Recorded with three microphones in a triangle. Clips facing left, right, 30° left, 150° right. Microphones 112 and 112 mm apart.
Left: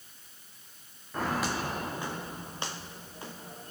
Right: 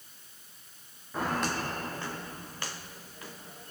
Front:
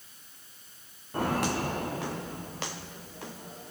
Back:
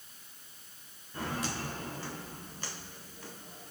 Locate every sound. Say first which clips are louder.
1.1 s footsteps: even, front 8 dB; straight ahead, 1.5 m; by 3.7 s 35° left, 2.5 m